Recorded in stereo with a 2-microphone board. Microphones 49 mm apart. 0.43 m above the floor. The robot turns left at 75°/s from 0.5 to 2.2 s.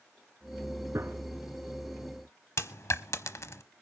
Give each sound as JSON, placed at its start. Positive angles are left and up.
{"t": 0.9, "sound": "a gunshot", "side_deg": -75, "distance_m": 2.5}
{"t": 2.6, "sound": "a dropped coin", "side_deg": 70, "distance_m": 0.7}